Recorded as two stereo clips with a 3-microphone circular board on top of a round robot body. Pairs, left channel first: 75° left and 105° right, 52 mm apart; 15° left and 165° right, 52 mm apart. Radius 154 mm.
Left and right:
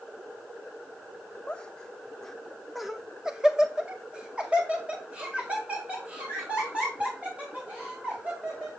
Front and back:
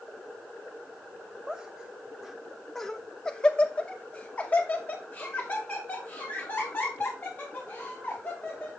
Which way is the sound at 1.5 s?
135° left.